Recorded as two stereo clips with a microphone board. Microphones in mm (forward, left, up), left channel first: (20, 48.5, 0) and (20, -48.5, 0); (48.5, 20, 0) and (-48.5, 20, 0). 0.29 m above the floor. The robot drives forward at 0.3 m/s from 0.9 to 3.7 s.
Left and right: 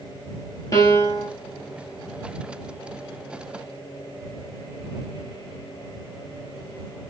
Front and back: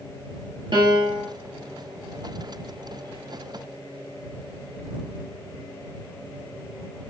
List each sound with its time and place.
0.7 s a piano: 140° left, 1.7 m; by 1.3 s 145° left, 1.8 m